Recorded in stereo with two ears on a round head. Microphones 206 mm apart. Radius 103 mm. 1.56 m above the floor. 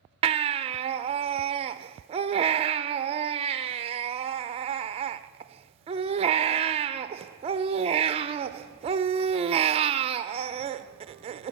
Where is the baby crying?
25° right (ahead or behind), 0.6 m.